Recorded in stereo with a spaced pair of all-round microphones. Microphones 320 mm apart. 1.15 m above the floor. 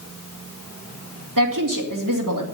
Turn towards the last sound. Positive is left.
turn(degrees=-80)